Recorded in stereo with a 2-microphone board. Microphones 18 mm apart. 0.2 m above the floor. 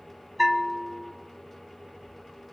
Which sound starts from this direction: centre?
A bell, at 0.4 s.